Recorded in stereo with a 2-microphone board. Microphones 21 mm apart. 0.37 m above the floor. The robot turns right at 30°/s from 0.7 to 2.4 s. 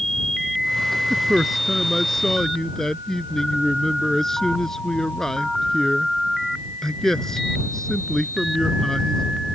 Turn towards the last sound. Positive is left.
turn(degrees=20)